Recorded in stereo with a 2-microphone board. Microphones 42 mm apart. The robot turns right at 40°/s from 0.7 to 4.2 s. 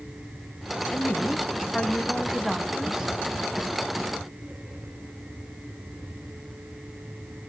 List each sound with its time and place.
0.9 s a woman speaking: 125° left, 1.7 m; by 3.1 s 150° right, 1.7 m